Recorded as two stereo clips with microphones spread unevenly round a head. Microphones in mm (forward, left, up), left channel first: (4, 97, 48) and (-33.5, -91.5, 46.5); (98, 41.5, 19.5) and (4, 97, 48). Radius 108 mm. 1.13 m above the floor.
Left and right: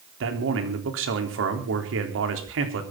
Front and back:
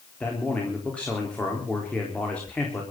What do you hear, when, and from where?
0.2 s a man speaking: 110° right, 3.5 m